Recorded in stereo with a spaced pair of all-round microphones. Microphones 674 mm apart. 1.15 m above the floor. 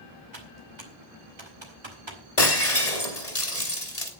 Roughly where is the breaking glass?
Left.